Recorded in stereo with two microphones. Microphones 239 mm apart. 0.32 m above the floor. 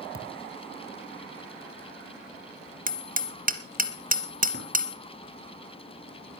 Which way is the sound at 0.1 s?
60° left (ahead or behind).